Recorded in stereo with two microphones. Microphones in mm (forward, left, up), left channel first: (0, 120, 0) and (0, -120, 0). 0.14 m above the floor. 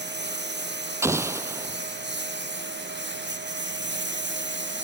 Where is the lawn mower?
45° right (ahead or behind).